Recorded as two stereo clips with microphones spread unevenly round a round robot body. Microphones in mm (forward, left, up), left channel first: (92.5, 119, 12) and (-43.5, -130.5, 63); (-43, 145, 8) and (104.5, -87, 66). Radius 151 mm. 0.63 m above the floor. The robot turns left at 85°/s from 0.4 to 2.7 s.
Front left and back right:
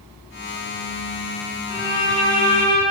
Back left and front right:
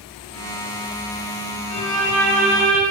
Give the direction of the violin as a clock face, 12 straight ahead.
8 o'clock.